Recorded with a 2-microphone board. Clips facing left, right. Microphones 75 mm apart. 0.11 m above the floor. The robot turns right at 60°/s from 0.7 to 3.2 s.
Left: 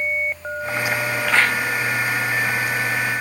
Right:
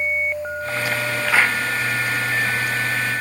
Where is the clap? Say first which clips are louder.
Even; 5° right (ahead or behind); by 1.6 s 25° right (ahead or behind).